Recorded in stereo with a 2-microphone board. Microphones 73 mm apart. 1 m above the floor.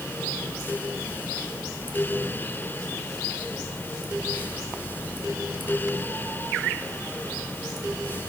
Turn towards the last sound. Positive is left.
No sound to turn to.